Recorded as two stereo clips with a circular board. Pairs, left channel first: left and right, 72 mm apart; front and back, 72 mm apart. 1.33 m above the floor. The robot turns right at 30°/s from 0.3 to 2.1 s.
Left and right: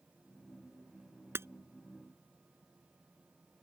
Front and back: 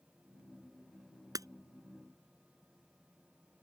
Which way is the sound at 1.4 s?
145° right.